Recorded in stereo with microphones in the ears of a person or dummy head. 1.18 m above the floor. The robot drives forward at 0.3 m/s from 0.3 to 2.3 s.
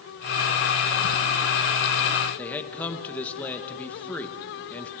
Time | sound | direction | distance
2.4 | a man speaking | 10° left (ahead or behind) | 1.6 m